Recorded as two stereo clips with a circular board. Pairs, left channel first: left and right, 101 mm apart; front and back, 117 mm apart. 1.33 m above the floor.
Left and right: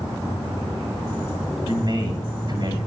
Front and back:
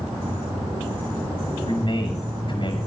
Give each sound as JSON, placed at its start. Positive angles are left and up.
{"t": 1.6, "sound": "a man speaking", "azimuth_deg": -45, "distance_m": 8.0}